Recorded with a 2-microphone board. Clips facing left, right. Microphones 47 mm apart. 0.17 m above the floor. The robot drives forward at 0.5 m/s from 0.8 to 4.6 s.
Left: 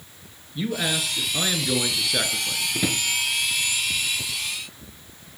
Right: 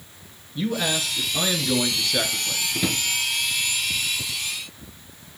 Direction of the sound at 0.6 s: 5° left (ahead or behind).